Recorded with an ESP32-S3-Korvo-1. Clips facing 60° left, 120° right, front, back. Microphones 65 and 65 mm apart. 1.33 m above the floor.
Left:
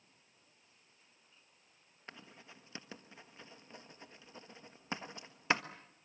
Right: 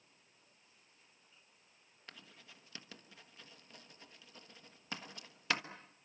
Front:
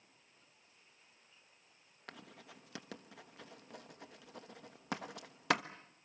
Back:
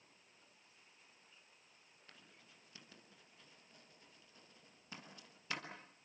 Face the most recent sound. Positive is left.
turn(degrees=-5)